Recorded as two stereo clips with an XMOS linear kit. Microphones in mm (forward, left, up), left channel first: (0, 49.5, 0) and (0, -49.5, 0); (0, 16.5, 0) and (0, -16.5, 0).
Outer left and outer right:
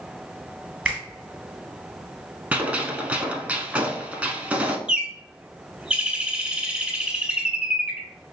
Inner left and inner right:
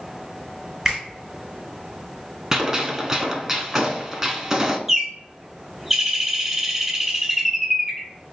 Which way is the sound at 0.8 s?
10° right (ahead or behind).